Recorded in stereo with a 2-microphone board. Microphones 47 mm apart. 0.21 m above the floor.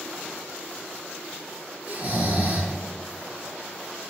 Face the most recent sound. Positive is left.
turn(degrees=-40)  # may be behind; listen again after turning